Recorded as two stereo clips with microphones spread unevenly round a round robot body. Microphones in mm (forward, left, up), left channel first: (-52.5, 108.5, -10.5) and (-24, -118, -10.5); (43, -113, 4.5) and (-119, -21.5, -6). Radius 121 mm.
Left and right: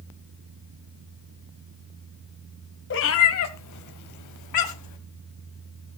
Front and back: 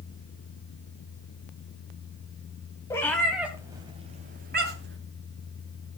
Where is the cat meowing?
50° left, 1.7 m; by 5.0 s 105° left, 2 m.